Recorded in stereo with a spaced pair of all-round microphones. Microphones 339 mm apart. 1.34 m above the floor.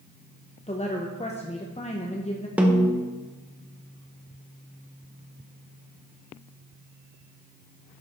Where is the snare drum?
5° right (ahead or behind), 1.0 m.